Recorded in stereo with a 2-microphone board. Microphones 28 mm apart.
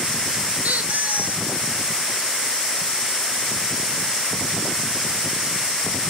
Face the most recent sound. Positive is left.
turn(degrees=-65)  # may be behind; listen again after turning